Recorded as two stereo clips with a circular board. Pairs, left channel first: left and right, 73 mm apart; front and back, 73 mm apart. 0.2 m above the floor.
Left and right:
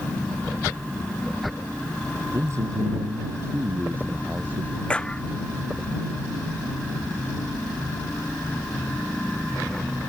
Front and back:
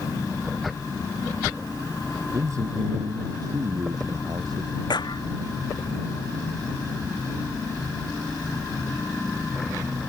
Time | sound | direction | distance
2.3 | a man speaking | 135° right | ?
4.9 | a clap | 15° left | ?